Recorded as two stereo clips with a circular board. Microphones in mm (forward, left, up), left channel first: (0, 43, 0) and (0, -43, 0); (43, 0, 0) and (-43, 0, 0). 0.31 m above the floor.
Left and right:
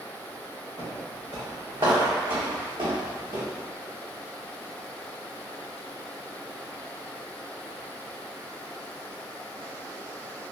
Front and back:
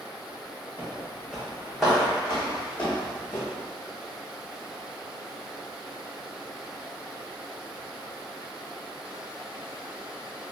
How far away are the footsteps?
About 2.0 m.